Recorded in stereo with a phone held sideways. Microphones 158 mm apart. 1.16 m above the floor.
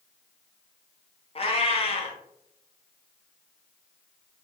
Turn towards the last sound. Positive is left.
turn(degrees=35)  # may be behind; listen again after turning